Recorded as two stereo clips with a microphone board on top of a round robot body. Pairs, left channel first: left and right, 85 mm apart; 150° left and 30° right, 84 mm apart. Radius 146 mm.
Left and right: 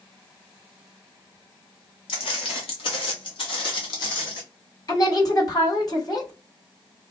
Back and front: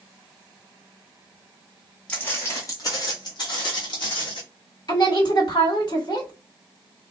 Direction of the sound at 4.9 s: 125° left.